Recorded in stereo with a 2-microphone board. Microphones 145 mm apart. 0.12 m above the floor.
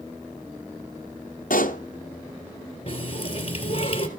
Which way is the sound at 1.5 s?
70° left (ahead or behind).